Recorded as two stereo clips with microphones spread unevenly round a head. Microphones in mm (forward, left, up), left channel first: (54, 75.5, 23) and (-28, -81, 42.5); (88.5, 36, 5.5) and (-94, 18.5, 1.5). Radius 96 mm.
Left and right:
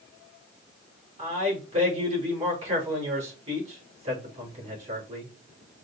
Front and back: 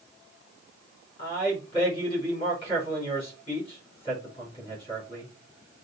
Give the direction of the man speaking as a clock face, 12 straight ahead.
2 o'clock.